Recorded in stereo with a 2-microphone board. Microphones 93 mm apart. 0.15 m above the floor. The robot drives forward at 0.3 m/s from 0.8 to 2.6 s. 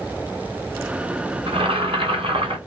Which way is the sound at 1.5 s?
75° right (ahead or behind).